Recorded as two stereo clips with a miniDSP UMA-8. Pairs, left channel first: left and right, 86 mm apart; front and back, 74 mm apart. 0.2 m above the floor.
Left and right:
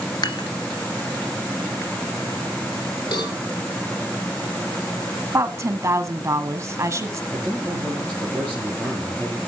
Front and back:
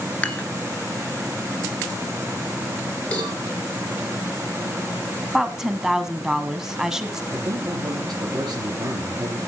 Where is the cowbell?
70° left, 4 m.